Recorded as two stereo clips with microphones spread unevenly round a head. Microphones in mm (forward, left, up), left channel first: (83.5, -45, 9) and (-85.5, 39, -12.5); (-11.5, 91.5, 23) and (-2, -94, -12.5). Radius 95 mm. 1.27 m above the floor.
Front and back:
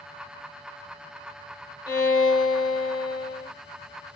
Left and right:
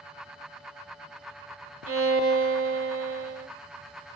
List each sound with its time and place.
1.9 s a violin: 90° right, 1.3 m